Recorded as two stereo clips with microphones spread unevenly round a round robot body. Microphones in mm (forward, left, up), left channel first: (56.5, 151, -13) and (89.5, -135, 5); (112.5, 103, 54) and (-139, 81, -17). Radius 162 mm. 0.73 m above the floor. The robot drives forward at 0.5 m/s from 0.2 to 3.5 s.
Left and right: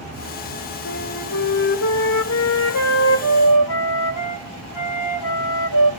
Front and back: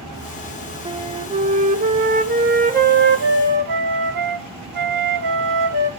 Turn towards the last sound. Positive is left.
turn(degrees=145)